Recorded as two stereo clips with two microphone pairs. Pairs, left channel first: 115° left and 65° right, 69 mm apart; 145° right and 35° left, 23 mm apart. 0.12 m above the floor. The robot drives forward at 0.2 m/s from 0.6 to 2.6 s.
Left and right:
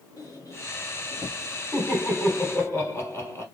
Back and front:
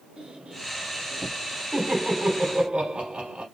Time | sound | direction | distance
0.2 | a squeak | 80° left | 1.8 m
1.7 | laughter | 70° left | 3 m